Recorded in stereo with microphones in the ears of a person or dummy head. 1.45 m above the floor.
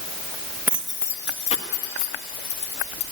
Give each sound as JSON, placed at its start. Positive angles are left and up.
{"t": 0.7, "sound": "keys jangling", "side_deg": -10, "distance_m": 1.2}